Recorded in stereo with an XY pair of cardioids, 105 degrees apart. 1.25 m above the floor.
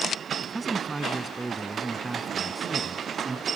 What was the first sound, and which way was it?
A man speaking, 20° right.